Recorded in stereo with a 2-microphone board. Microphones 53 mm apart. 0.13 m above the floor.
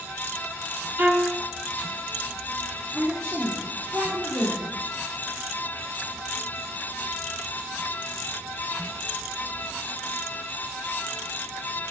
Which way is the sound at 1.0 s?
40° right (ahead or behind).